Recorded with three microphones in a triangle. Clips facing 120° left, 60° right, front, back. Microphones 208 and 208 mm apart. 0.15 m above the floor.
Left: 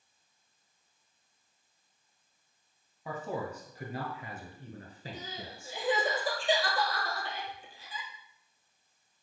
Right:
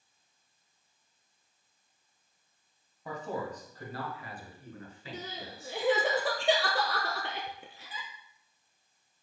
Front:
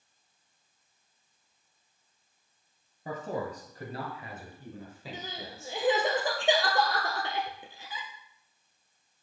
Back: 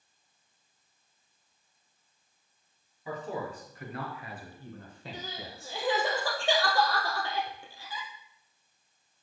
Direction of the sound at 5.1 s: 70° right.